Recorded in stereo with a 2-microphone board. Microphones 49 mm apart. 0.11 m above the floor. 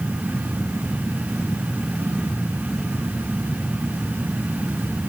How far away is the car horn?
No car horn in this recording.